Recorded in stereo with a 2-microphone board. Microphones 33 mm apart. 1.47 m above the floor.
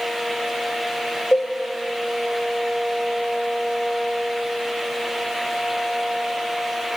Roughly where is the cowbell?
Left.